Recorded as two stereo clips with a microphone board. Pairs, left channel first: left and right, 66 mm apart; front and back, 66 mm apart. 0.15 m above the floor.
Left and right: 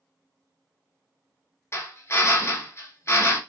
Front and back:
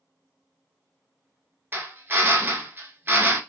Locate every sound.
1.7 s a drill: 130° left, 0.8 m